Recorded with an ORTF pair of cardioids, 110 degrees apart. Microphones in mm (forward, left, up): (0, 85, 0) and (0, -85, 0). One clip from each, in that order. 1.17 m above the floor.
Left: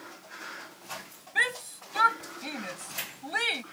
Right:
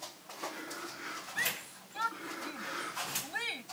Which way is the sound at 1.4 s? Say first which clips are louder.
Left 9 dB; 65° left.